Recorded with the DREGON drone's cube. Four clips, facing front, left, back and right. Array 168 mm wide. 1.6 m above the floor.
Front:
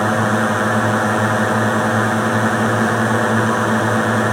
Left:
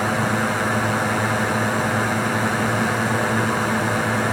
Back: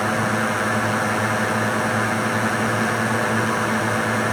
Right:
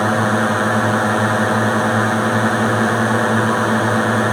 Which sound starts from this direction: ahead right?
A drone, at 0.0 s.